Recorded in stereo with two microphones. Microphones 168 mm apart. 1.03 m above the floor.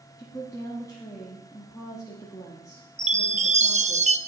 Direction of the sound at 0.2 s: 20° left (ahead or behind).